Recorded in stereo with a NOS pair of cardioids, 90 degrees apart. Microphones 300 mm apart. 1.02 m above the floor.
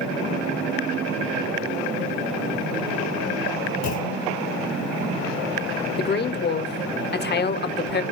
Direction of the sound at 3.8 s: 65° left.